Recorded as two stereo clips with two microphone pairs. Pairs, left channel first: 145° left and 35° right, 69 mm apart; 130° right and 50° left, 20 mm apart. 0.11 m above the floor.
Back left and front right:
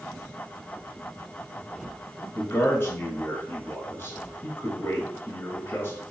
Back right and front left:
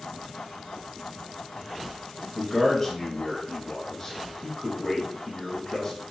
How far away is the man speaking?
About 1.4 m.